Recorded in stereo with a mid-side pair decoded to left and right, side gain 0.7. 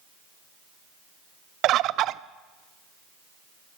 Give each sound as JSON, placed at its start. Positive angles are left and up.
{"t": 1.6, "sound": "a bird", "azimuth_deg": -50, "distance_m": 0.6}